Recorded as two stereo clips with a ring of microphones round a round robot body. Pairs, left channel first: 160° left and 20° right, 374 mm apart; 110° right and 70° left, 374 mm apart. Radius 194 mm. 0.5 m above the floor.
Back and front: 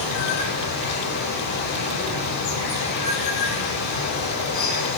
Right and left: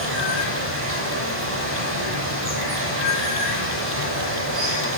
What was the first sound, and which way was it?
Running water, 125° left.